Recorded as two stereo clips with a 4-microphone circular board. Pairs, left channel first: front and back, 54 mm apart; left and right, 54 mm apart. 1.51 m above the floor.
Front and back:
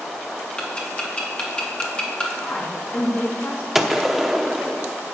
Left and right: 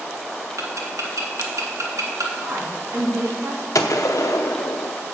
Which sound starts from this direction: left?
A gunshot, at 3.8 s.